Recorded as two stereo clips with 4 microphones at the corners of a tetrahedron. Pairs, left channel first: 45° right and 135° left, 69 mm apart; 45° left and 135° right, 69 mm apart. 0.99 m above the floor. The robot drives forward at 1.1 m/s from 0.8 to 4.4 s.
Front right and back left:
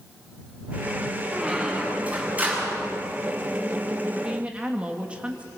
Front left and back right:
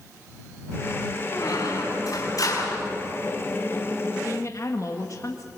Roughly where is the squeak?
Ahead left.